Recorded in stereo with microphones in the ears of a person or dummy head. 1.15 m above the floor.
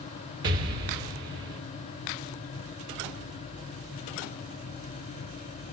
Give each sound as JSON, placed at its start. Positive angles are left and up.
{"t": 0.4, "sound": "an explosion", "side_deg": -25, "distance_m": 1.0}